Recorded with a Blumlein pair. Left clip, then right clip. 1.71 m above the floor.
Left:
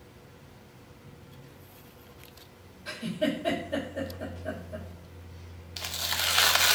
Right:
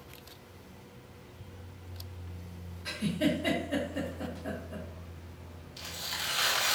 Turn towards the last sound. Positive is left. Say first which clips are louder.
# left 6 dB
turn(degrees=50)